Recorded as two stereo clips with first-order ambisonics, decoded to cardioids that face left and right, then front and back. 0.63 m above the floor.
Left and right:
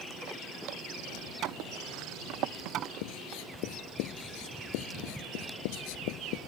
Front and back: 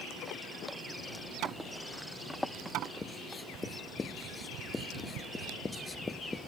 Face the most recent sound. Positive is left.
turn(degrees=80)